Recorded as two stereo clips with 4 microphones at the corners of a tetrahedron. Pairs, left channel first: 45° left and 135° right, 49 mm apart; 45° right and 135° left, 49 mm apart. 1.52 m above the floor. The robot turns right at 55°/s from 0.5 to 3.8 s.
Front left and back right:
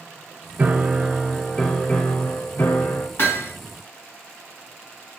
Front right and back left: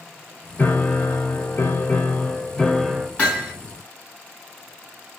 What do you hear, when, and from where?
0.6 s a piano: 90° right, 0.7 m; by 3.1 s 45° left, 0.7 m
3.2 s hammering: 10° left, 2 m; by 3.5 s 30° left, 2 m